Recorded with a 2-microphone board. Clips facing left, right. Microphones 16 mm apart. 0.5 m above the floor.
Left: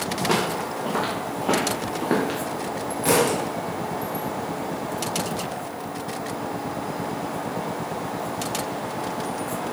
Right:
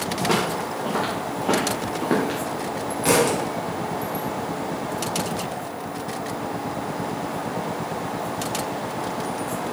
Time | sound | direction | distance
0.2 | footsteps | 5° left (ahead or behind) | 4.5 m
3.0 | a thud | 15° right (ahead or behind) | 2.5 m